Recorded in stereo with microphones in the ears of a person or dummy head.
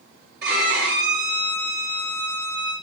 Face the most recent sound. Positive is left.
turn(degrees=-60)  # may be behind; listen again after turning